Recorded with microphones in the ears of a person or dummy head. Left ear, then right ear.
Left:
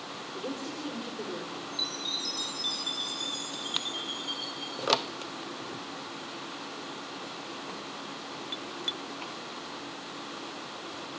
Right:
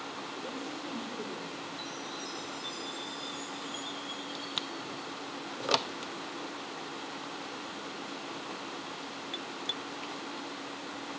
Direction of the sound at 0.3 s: 35° left (ahead or behind).